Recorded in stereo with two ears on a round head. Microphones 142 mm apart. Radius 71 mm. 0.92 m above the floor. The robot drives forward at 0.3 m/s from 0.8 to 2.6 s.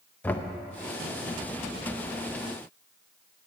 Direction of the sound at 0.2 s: 10° left (ahead or behind).